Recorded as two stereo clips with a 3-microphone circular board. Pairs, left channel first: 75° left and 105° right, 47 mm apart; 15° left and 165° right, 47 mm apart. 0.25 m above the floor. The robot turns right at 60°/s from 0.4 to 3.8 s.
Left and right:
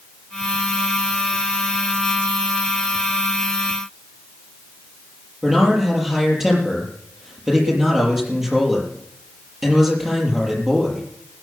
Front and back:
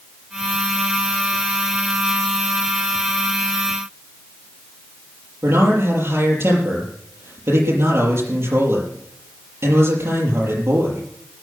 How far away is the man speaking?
About 5.5 m.